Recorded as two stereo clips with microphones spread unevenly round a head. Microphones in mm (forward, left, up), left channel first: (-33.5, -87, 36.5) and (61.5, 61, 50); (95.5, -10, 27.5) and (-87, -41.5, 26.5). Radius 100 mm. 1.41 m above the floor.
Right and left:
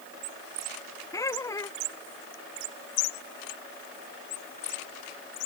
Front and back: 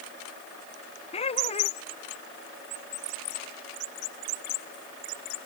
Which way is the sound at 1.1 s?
50° right.